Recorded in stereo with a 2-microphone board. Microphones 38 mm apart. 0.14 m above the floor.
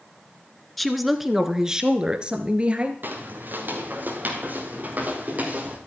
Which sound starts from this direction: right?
Footsteps, at 3.0 s.